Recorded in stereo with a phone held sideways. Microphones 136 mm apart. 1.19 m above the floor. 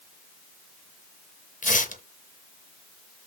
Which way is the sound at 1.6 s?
75° left (ahead or behind).